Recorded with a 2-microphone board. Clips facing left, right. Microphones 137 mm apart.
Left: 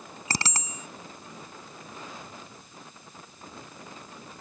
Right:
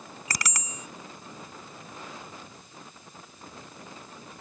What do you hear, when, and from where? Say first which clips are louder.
0.3 s a bicycle bell: left 3 dB; 30° left (ahead or behind)